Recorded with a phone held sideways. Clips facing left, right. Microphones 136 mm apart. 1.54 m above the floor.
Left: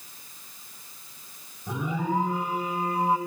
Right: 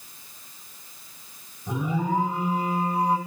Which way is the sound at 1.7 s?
Centre (ahead or behind).